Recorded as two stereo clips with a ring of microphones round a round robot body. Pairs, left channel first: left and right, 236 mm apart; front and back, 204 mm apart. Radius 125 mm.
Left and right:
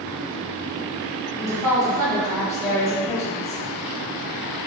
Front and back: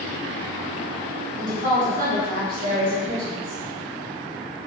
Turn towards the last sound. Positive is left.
turn(degrees=160)